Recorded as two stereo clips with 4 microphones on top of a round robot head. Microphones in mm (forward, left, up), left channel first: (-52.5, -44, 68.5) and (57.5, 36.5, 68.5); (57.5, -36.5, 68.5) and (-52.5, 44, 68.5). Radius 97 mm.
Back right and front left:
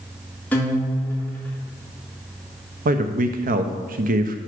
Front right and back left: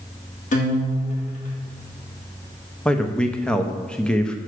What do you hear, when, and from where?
0.5 s a guitar: 65° right, 2.0 m
2.9 s a man speaking: 50° left, 0.9 m